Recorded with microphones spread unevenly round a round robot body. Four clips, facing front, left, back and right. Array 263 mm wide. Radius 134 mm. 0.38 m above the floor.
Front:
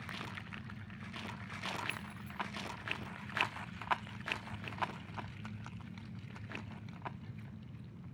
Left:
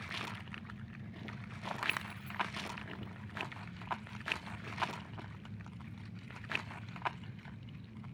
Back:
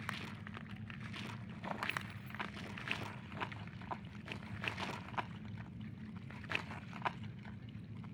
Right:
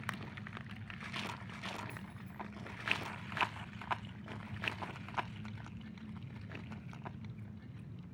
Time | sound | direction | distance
1.9 | keys jangling | 90° left | 3.5 m